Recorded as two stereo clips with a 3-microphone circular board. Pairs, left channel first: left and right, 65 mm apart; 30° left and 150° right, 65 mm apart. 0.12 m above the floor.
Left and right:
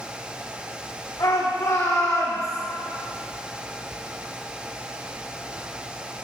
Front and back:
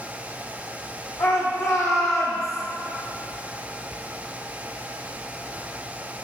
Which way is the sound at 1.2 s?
60° left.